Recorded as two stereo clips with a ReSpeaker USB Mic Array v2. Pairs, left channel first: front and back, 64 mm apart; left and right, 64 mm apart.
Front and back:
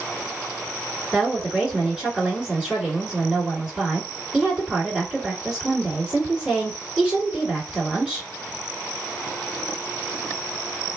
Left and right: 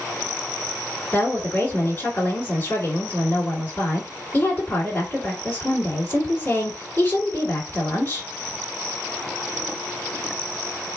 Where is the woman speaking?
105° left, 2 m.